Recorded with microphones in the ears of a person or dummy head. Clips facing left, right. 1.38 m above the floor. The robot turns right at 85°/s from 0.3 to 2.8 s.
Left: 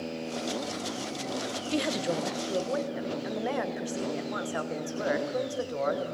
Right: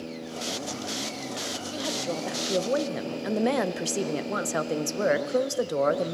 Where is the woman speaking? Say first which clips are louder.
Left 3 dB; 135° left, 0.9 m; by 6.2 s 130° right, 0.9 m.